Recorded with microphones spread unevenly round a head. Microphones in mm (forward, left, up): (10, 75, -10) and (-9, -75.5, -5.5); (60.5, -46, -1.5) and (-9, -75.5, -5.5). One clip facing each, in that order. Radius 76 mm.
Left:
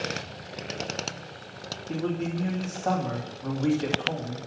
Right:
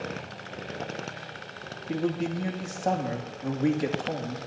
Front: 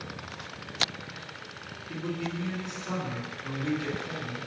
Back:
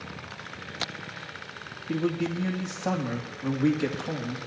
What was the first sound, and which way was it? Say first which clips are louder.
A man speaking: right 1 dB, back 7 dB; 165° right.